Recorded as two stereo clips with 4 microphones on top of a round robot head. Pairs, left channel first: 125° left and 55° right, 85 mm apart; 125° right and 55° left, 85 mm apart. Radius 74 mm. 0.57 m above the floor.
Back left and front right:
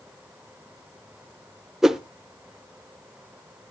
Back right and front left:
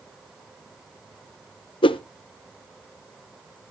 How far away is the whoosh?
About 0.7 m.